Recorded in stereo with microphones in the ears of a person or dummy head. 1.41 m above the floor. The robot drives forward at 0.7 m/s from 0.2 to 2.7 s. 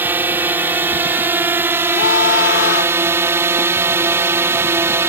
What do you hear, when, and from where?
0.0 s a drone: 10° right (ahead or behind); by 5.1 s 15° right (ahead or behind)
1.9 s a scream: 70° left (ahead or behind); by 3.0 s 75° left (ahead or behind)